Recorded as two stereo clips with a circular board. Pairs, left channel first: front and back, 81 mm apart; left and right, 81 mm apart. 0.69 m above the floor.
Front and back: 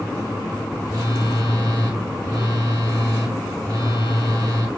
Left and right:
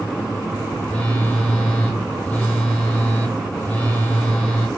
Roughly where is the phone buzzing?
Behind.